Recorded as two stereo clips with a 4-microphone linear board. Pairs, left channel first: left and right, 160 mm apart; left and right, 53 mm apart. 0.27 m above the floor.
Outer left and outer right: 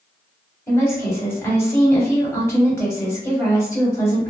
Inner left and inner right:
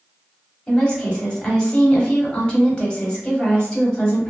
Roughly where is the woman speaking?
Centre.